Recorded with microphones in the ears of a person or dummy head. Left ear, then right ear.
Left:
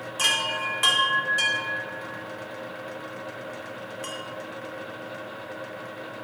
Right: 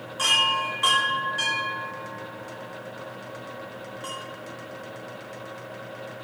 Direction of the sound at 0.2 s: 25° left (ahead or behind).